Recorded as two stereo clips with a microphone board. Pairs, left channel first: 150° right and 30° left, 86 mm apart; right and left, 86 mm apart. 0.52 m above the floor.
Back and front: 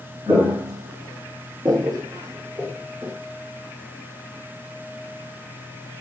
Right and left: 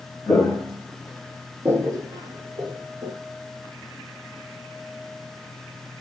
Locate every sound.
0.3 s footsteps: 15° right, 1.1 m; by 3.1 s 100° left, 1.1 m